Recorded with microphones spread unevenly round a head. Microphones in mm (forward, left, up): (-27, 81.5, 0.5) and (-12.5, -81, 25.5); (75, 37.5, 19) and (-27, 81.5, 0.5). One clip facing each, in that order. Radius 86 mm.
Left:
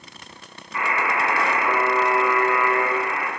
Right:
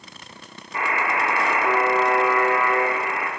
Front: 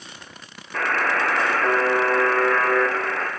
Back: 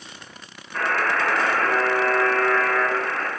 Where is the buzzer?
20° right, 0.8 m.